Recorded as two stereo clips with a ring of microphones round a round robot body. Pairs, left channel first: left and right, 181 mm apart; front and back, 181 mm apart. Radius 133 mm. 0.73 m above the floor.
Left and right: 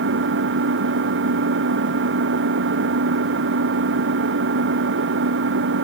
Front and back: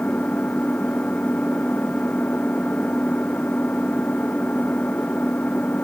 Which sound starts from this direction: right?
An engine running, at 0.0 s.